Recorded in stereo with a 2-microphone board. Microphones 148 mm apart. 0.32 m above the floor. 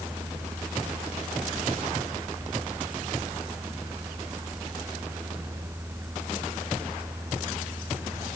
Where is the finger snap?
I don't hear a finger snap.